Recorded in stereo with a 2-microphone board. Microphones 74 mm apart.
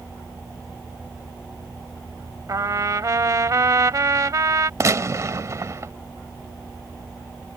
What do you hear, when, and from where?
2.5 s a trumpet: 50° right (ahead or behind)
4.8 s a gunshot: 45° right (ahead or behind)